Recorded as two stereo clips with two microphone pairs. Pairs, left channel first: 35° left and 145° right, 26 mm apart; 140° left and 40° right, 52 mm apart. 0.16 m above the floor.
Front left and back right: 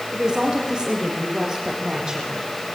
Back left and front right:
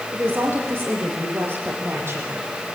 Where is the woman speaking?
90° right, 7 m; by 2.5 s 80° right, 6 m.